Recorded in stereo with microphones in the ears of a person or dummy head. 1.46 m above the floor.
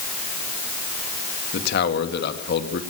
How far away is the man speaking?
About 2 m.